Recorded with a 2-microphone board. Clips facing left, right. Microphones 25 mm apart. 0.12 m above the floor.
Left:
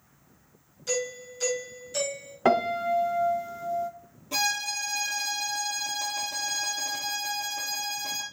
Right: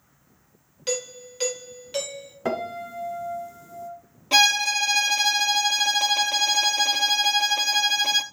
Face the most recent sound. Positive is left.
turn(degrees=-65)  # may be behind; listen again after turning